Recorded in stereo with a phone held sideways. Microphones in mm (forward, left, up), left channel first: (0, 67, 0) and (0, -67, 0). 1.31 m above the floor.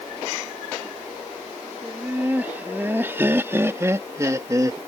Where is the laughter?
15° right (ahead or behind); by 4.8 s 25° right (ahead or behind).